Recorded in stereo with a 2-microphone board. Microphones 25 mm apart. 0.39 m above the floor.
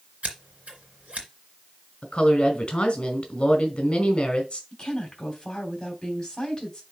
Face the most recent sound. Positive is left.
turn(degrees=30)  # may be behind; listen again after turning